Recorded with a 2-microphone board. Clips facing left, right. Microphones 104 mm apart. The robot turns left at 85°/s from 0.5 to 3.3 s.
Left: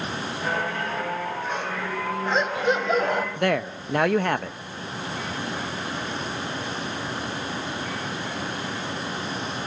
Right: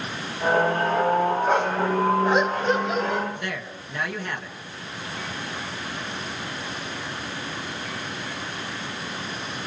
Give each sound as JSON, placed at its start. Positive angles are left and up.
{"t": 1.5, "sound": "a dog barking", "azimuth_deg": -95, "distance_m": 2.5}
{"t": 3.4, "sound": "a man speaking", "side_deg": 60, "distance_m": 1.1}